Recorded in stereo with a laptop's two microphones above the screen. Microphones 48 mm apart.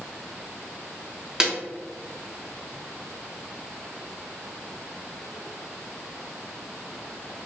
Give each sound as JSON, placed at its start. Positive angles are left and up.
{"t": 1.4, "sound": "a snare drum", "side_deg": -15, "distance_m": 1.3}